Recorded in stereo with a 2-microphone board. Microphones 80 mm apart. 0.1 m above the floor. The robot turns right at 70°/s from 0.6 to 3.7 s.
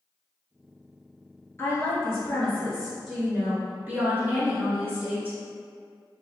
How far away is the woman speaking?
About 1.4 m.